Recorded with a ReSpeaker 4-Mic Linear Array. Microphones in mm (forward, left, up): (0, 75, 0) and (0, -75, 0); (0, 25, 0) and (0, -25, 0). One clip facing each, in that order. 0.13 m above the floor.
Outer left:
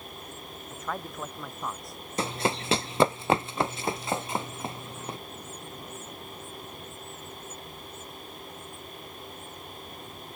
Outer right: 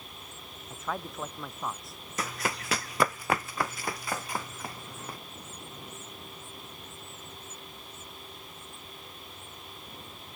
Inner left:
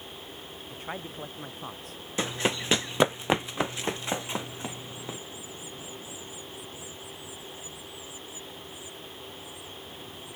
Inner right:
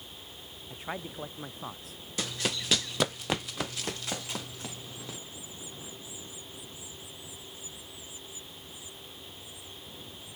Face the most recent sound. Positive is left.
turn(degrees=25)  # may be behind; listen again after turning